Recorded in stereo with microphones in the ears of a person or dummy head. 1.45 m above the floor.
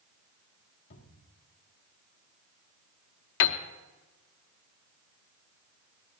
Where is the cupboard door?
70° left (ahead or behind), 2 m.